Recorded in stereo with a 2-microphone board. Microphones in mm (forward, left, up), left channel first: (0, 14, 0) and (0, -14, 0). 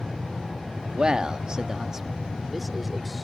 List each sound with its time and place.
0.9 s a man speaking: 30° right (ahead or behind); by 3.2 s centre (ahead or behind)